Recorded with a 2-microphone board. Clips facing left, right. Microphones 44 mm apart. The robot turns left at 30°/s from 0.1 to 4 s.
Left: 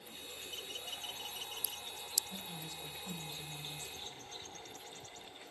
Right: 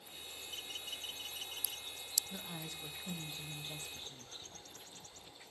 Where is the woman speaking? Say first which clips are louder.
Even; 40° right, 1.3 m; by 4.3 s 90° right, 1.3 m.